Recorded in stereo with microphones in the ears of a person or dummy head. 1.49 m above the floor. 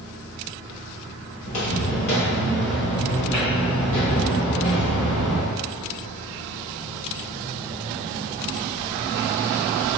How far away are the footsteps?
About 1.8 m.